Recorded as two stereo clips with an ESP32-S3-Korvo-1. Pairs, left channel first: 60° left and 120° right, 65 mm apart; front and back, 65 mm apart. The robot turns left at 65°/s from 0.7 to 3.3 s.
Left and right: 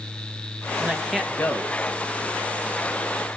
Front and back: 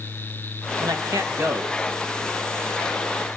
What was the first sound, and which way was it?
A man speaking, 170° left.